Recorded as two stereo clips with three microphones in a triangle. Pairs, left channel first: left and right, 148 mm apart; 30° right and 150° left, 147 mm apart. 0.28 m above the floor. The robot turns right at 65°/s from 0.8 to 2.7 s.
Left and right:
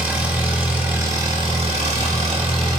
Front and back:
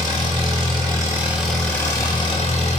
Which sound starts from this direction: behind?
An engine running, at 0.0 s.